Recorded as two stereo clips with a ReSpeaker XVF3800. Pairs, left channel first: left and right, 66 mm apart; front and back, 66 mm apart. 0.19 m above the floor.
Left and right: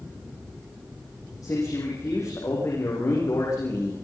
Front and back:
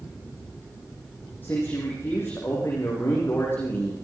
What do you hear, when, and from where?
1.4 s a man speaking: 60° left, 7 m